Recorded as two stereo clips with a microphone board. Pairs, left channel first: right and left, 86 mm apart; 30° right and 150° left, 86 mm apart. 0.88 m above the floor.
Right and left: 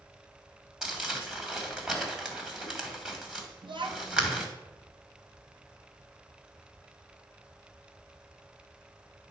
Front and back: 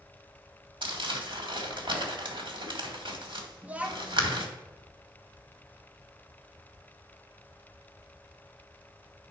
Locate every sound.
0.8 s crumpling: 170° left, 1.8 m
3.6 s a child speaking: 75° left, 0.9 m